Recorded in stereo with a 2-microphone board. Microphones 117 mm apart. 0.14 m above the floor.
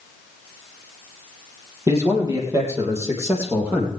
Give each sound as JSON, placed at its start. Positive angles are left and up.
{"t": 1.9, "sound": "a man speaking", "side_deg": -30, "distance_m": 5.0}